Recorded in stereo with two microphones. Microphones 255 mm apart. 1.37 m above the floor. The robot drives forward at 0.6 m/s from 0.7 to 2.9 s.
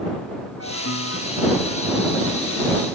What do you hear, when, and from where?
0.6 s a piano: 65° left (ahead or behind); by 2.9 s 70° left (ahead or behind)